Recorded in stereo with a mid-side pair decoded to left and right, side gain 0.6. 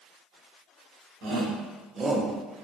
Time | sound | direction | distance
1.2 | a shout | 70° right | 1.3 m